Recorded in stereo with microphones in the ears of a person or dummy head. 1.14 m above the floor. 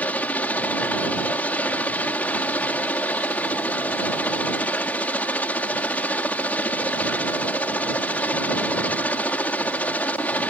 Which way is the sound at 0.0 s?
10° left (ahead or behind).